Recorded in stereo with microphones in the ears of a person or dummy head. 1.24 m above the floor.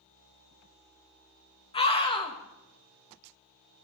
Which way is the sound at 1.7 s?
25° left (ahead or behind).